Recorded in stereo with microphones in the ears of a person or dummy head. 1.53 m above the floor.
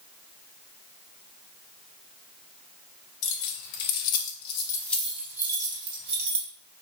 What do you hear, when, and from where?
3.2 s keys jangling: 65° left (ahead or behind), 0.9 m; by 6.5 s 40° right (ahead or behind), 1.1 m